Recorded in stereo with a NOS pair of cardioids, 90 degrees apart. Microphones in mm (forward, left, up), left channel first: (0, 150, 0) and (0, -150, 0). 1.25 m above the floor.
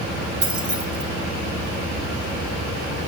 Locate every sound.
0.4 s keys jangling: 25° right, 1.9 m